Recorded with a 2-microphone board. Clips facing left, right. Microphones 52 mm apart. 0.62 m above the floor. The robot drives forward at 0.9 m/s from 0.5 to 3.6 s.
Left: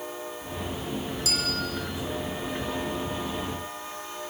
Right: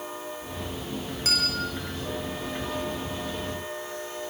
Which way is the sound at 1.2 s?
45° right (ahead or behind).